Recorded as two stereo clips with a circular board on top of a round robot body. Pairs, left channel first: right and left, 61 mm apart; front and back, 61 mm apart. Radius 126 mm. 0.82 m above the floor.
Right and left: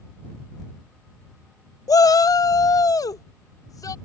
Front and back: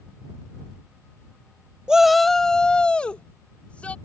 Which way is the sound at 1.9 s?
105° right.